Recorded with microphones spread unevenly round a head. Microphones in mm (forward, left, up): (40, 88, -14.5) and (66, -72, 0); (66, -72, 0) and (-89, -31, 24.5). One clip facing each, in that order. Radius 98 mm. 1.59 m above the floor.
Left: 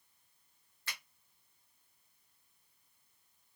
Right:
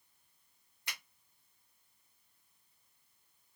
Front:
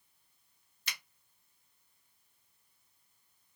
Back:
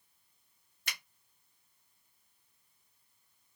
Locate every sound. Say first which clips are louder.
0.9 s a finger snap: even, back 1 dB; 155° right, 1.0 m